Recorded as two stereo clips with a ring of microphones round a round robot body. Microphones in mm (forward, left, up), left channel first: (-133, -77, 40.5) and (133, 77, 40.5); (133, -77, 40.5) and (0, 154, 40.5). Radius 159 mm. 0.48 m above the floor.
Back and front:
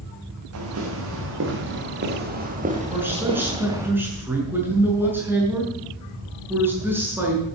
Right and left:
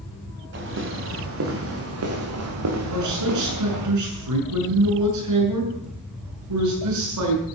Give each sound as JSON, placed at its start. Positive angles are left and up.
{"t": 0.5, "sound": "footsteps", "azimuth_deg": 75, "distance_m": 6.0}
{"t": 2.9, "sound": "a man speaking", "azimuth_deg": 115, "distance_m": 6.5}